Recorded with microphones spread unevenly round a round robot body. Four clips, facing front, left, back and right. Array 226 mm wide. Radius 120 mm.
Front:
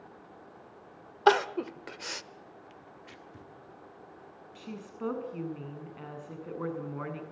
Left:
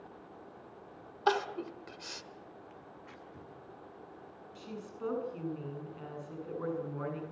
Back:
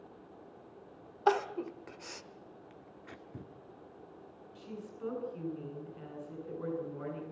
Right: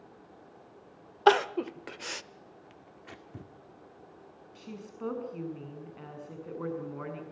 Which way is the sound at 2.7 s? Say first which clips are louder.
Even, front 1 dB; 120° right.